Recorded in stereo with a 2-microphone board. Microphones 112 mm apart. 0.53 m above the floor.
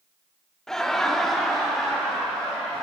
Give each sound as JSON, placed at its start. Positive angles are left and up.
{"t": 0.7, "sound": "laughter", "side_deg": 5, "distance_m": 0.9}